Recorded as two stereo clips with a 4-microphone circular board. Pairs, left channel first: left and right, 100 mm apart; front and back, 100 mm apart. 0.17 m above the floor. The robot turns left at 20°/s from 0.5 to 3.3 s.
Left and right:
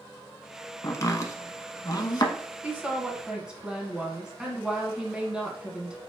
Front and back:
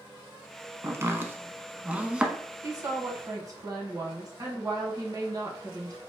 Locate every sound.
0.8 s chopping: 130° left, 0.7 m; by 2.3 s 100° left, 0.7 m
2.6 s a woman speaking: 155° right, 1.3 m; by 6.0 s 165° right, 1.3 m